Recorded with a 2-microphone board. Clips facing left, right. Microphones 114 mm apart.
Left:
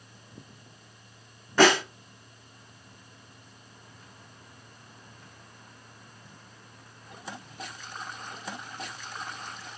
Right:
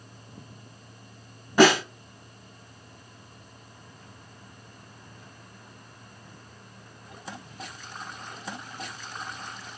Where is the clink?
I don't hear a clink.